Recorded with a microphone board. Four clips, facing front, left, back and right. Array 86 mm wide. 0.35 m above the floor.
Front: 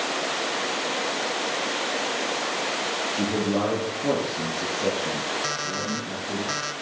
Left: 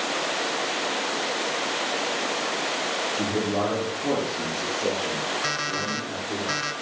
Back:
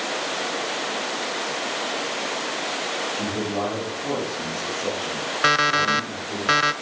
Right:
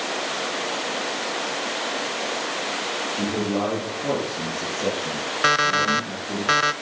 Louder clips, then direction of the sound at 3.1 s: Right 2 dB, front 4 dB; 25° right.